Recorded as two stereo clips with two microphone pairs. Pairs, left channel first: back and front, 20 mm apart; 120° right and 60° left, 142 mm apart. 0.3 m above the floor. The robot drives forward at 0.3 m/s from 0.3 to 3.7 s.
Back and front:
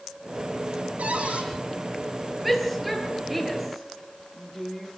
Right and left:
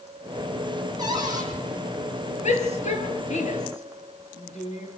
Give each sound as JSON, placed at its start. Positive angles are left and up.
{"t": 1.0, "sound": "a cupboard door", "azimuth_deg": 0, "distance_m": 8.5}
{"t": 2.4, "sound": "a shout", "azimuth_deg": -85, "distance_m": 7.0}